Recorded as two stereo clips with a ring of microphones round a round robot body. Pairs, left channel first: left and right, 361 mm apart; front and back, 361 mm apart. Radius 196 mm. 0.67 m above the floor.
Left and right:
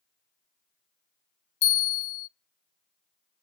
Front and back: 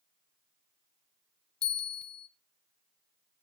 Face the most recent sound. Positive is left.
turn(degrees=55)